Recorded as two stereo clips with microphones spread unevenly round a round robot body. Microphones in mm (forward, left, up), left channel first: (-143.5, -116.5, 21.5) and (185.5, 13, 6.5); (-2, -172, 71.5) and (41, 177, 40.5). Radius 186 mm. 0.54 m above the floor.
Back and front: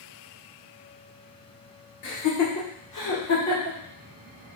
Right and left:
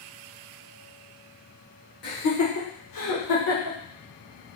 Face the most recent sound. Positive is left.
turn(degrees=-115)